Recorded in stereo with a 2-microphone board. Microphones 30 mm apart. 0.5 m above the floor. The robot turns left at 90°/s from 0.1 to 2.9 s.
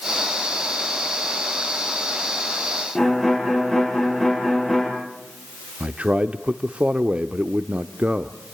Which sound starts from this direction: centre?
A violin, at 3.0 s.